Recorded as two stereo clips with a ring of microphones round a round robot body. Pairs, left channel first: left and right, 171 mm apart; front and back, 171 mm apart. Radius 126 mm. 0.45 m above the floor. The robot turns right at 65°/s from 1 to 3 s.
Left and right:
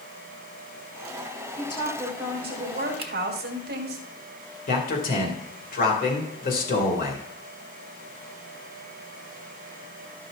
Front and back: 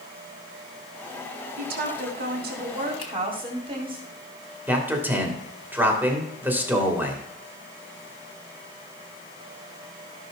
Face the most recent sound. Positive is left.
turn(degrees=105)